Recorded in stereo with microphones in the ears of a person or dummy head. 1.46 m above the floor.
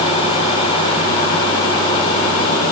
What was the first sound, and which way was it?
Only background noise.